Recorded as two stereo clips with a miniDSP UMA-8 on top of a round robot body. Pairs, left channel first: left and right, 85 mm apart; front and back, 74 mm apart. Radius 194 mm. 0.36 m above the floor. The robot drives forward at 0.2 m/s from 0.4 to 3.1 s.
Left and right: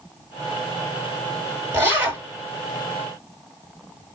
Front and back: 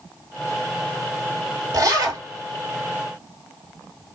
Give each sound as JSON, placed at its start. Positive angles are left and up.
{"t": 1.7, "sound": "a zipper", "azimuth_deg": -150, "distance_m": 2.0}